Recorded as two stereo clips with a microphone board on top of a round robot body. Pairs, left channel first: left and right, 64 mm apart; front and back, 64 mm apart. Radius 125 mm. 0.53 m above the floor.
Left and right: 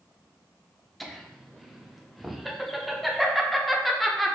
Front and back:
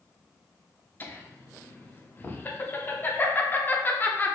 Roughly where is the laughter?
Ahead.